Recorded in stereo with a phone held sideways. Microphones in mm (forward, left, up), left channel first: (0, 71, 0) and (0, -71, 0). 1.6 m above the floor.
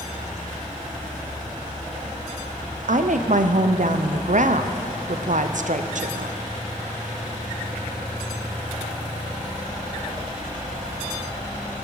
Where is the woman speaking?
65° right (ahead or behind), 0.5 m.